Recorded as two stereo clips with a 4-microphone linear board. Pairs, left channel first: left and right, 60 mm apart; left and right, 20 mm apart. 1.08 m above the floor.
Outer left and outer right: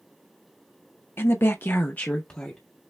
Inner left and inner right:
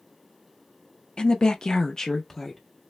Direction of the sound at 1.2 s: 45° left (ahead or behind).